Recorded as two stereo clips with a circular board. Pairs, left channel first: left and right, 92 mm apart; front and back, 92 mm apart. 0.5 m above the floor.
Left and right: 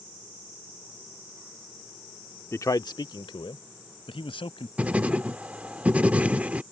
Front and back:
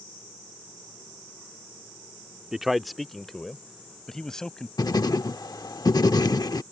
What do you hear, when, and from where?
2.5 s a man speaking: 100° left; by 4.7 s 85° left
4.8 s writing: 20° right